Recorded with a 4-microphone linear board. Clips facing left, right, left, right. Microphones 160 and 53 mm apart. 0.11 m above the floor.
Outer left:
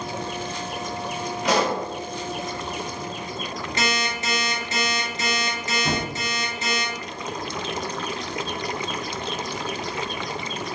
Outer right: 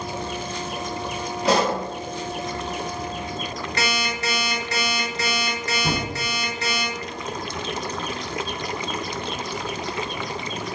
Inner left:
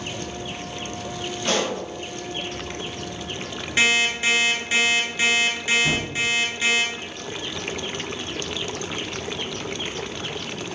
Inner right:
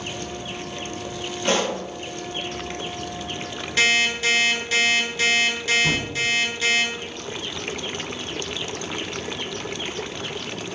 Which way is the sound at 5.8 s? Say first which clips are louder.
Even, even; 35° right (ahead or behind).